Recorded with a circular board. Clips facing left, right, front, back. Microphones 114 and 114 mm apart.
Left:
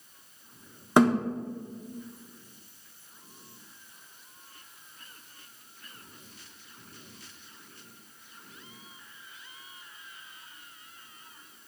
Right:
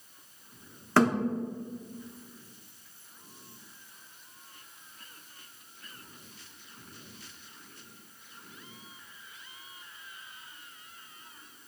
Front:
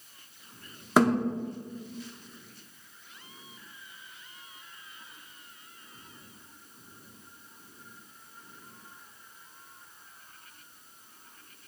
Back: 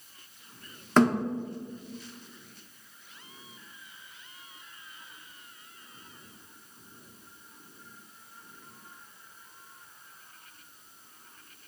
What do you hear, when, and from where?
1.0 s a thud: 60° left, 0.8 m